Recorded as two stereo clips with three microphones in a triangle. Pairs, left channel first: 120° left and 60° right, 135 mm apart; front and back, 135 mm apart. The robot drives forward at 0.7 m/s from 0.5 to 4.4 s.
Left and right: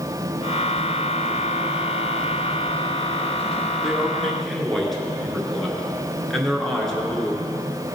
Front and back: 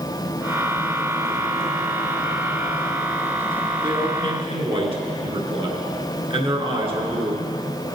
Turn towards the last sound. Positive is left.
turn(degrees=-155)